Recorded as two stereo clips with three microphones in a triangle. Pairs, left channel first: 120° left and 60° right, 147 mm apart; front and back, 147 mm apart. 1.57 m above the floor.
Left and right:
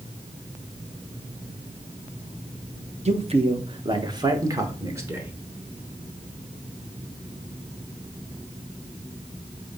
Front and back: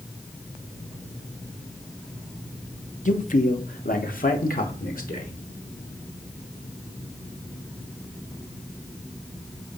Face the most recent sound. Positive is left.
turn(degrees=10)